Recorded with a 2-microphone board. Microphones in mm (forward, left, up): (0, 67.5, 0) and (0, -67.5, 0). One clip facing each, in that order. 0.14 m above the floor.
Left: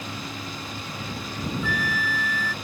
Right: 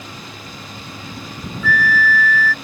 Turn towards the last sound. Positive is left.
turn(degrees=20)  # may be behind; listen again after turning